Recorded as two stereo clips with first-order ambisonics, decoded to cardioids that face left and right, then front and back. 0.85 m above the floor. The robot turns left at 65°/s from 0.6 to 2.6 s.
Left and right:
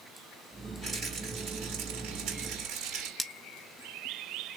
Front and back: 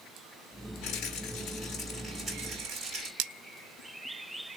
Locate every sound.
0.8 s a rattle: 15° right, 6 m; by 3.1 s 135° right, 6 m
3.2 s cutlery clinking: 175° left, 0.7 m